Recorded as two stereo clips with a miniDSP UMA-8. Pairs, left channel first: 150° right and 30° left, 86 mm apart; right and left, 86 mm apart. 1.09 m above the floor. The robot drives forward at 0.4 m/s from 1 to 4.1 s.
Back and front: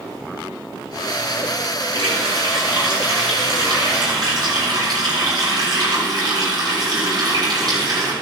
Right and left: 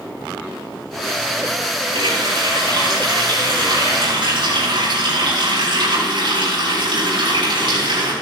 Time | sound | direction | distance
1.9 | a running tap | 60° left | 6.5 m